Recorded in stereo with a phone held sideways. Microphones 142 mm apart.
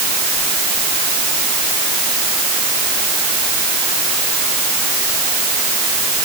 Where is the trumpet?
No trumpet in this recording.